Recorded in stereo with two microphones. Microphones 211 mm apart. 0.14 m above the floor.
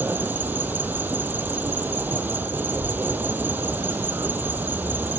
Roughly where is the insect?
Centre.